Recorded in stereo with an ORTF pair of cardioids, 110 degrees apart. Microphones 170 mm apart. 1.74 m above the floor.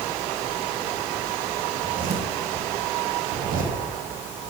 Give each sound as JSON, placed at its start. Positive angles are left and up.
{"t": 1.7, "sound": "a zipper", "azimuth_deg": -55, "distance_m": 2.5}